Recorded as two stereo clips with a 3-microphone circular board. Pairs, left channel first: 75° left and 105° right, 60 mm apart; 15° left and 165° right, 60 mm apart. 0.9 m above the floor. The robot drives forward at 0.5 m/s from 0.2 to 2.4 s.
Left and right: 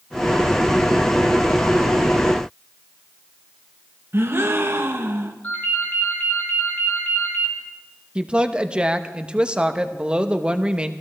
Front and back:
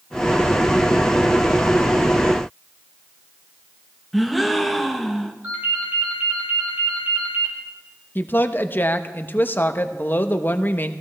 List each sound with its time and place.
4.1 s a gasp: 75° right, 0.8 m
5.4 s a ringtone: 135° left, 4 m
8.2 s a woman speaking: 35° right, 0.7 m